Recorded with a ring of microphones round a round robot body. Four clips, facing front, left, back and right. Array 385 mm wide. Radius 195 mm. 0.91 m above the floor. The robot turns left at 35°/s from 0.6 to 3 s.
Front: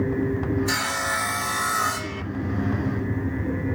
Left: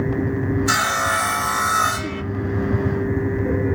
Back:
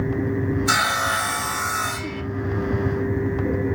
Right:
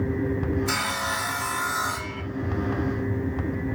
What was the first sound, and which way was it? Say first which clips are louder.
Sawing: left 7 dB, back 5 dB; 130° left.